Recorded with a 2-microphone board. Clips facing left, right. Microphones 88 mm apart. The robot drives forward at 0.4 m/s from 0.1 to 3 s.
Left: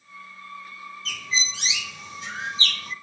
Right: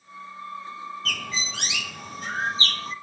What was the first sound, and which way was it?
A bird, 60° right (ahead or behind).